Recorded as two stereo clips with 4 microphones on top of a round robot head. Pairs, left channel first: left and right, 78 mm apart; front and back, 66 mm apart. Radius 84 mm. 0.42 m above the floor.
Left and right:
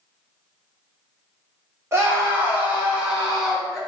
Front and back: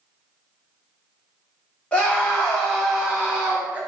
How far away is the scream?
About 1.4 m.